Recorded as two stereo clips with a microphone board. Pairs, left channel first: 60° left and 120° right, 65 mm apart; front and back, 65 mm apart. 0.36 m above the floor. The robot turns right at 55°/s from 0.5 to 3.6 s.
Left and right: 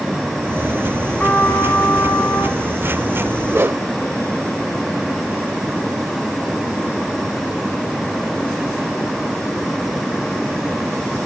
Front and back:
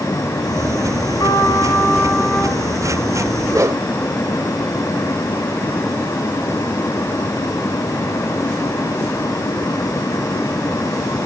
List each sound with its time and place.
1.2 s a trumpet: 10° right, 3 m; by 2.6 s 70° left, 3 m
3.5 s a whoosh: 170° right, 0.9 m; by 3.8 s 165° right, 0.9 m